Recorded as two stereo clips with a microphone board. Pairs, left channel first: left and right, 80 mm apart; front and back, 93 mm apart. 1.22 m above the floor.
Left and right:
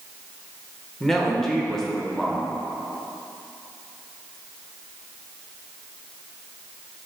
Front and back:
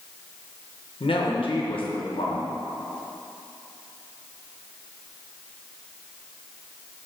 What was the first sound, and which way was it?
A woman speaking, 5° left.